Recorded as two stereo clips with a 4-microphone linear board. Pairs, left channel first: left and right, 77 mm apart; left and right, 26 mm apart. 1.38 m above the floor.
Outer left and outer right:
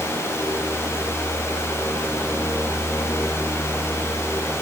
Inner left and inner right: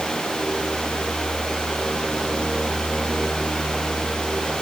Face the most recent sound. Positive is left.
No sound to turn to.